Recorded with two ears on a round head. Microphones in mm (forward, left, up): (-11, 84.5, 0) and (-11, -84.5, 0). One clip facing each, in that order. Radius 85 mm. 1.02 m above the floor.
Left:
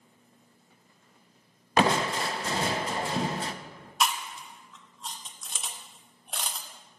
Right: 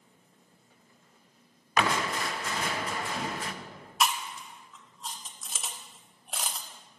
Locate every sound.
1.8 s crushing: 25° left (ahead or behind), 0.6 m
4.0 s chewing: 5° right (ahead or behind), 0.8 m